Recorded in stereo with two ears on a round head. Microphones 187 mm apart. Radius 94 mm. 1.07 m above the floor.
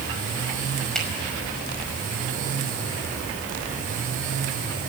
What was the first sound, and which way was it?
A finger snap, 5° left (ahead or behind).